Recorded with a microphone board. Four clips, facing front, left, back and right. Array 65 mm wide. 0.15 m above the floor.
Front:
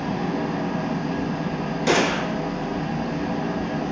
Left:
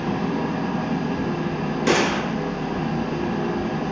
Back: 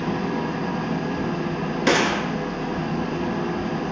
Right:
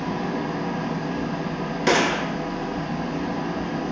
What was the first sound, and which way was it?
An engine running, 145° left.